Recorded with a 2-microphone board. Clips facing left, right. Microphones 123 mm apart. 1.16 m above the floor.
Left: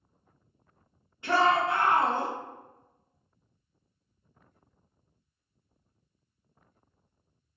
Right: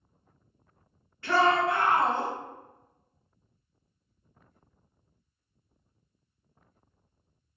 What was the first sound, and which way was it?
A shout, 20° left (ahead or behind).